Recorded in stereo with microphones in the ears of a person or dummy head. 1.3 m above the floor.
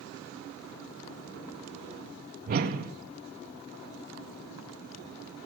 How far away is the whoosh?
About 0.6 m.